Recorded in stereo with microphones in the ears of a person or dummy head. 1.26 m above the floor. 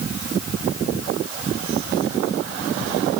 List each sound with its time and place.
Only background noise.